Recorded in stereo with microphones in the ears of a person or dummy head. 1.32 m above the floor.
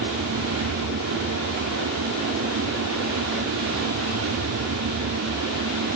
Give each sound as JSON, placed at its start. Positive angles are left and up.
{"t": 0.0, "sound": "a fan", "side_deg": -80}